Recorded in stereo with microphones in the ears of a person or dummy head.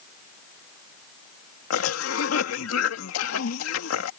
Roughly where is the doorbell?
I don't hear a doorbell.